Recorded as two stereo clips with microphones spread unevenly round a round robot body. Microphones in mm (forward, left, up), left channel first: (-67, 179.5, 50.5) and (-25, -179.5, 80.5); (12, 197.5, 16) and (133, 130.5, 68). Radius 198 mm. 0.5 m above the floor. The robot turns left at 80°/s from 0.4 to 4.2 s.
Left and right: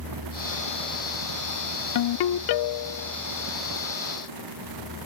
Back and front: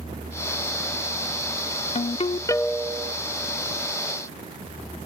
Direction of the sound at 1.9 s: 135° left.